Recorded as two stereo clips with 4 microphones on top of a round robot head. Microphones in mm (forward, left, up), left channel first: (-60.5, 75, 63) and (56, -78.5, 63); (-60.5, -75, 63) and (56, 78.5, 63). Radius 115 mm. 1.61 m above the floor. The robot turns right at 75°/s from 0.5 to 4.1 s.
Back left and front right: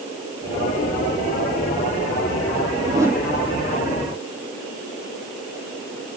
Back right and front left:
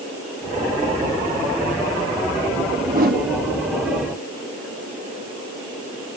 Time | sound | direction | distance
2.9 | a whoosh | 5° left | 1.3 m